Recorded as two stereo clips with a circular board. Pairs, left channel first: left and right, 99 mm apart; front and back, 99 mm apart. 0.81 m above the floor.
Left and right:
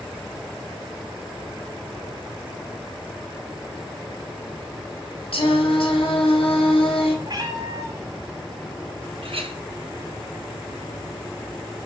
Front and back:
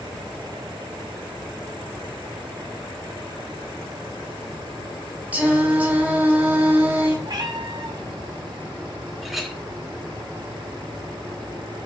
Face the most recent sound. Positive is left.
turn(degrees=-95)